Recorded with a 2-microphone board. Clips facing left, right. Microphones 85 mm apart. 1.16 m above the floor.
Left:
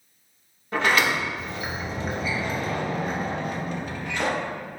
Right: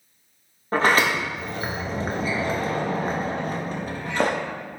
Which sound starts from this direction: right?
A sliding door, at 0.7 s.